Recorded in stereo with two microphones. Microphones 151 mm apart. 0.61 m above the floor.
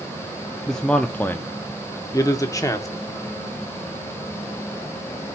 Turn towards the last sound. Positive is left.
turn(degrees=25)  # may be behind; listen again after turning